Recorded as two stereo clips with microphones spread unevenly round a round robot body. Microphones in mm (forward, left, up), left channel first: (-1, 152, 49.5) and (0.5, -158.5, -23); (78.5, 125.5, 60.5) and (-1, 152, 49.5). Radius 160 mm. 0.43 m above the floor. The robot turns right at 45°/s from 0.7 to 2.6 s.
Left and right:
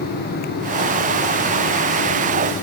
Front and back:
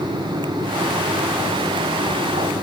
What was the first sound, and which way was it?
Only background noise.